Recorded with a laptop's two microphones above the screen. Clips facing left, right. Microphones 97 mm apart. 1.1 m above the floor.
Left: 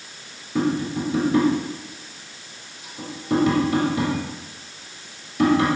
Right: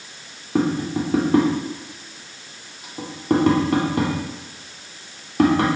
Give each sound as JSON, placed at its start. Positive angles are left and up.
{"t": 0.6, "sound": "tapping", "side_deg": -55, "distance_m": 2.5}